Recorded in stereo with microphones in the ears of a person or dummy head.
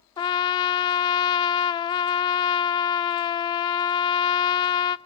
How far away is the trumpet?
About 0.6 m.